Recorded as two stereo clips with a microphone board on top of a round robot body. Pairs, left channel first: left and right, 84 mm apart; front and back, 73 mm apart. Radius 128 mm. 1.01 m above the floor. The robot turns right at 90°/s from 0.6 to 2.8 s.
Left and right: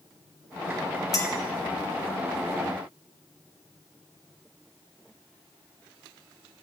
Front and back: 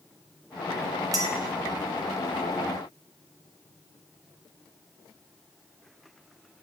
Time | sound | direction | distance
1.1 | a clink | 135° left | 0.9 m